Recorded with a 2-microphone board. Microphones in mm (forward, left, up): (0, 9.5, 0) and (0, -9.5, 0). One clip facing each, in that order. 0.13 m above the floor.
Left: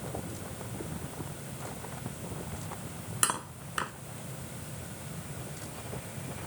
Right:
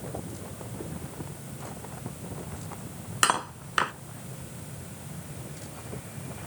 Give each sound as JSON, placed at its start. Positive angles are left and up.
{"t": 3.2, "sound": "cutlery clinking", "side_deg": -35}